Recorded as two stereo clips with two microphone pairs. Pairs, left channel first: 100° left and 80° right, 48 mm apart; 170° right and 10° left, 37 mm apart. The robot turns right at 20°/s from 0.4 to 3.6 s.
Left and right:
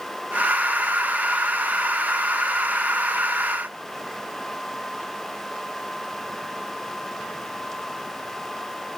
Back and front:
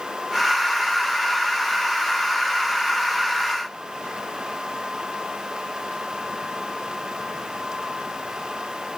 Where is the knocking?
No knocking in this recording.